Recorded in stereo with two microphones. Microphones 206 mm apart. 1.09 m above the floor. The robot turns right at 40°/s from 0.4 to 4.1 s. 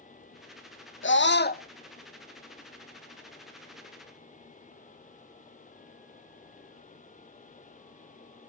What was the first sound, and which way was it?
A scream, 70° left (ahead or behind).